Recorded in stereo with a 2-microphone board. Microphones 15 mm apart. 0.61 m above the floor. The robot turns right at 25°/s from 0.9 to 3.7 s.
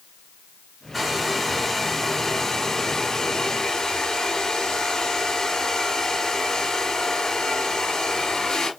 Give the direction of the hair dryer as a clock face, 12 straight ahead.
12 o'clock.